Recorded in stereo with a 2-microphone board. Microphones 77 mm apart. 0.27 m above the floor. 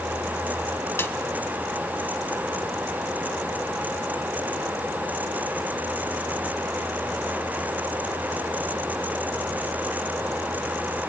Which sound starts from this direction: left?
A snare drum, at 1.0 s.